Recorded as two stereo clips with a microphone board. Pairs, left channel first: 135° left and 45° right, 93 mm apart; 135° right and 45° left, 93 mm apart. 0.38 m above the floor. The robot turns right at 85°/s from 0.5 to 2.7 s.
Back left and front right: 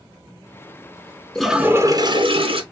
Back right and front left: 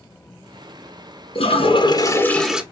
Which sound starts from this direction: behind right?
A toilet flushing, at 1.4 s.